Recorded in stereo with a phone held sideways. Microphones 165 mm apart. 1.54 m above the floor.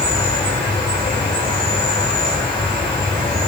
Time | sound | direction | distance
0.0 | an insect | 25° left (ahead or behind) | 3 m